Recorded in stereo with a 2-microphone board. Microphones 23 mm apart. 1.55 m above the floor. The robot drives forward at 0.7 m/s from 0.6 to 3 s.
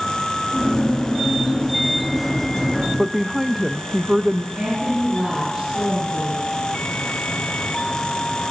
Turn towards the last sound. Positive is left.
turn(degrees=-45)  # may be behind; listen again after turning